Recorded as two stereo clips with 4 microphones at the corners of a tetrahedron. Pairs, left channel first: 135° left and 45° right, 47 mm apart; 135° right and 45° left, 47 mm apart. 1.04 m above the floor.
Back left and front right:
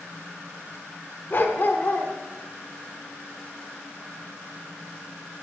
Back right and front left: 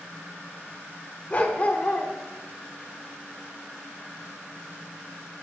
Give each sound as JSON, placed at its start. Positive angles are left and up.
{"t": 1.3, "sound": "a dog barking", "azimuth_deg": 175, "distance_m": 0.9}